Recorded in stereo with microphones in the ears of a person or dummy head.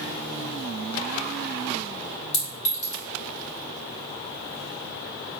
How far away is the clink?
About 2.0 m.